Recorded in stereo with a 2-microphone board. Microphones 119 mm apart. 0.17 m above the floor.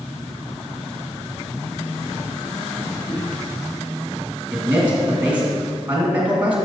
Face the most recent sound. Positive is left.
turn(degrees=-15)  # may be behind; listen again after turning